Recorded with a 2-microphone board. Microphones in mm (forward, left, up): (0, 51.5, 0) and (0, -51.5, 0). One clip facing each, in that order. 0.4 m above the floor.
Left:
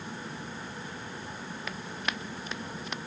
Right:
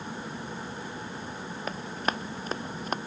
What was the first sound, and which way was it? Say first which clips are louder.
Running footsteps: right 6 dB; 40° right (ahead or behind).